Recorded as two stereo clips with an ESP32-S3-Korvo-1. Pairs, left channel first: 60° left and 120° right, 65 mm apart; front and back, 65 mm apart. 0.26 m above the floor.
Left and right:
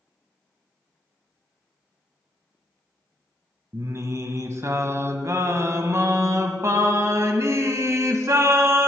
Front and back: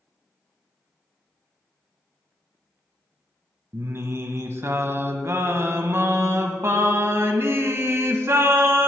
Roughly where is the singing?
Behind right.